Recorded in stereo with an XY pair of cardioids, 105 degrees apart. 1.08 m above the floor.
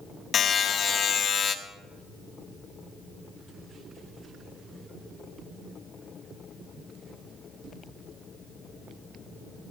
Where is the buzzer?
50° left, 1.4 m.